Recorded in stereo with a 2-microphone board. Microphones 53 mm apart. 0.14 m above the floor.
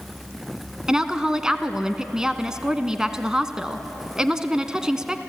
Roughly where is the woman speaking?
Centre.